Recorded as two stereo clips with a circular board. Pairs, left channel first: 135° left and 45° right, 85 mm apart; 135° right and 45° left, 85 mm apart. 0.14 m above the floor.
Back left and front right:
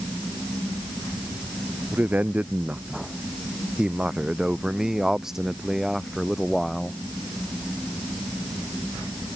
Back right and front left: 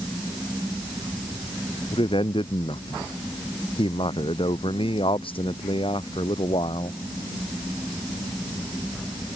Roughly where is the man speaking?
Behind right.